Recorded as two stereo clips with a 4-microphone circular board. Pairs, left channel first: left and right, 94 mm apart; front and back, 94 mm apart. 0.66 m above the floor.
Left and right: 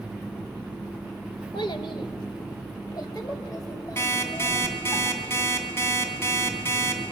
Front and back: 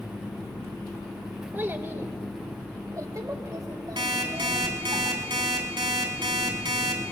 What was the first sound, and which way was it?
A child speaking, 110° left.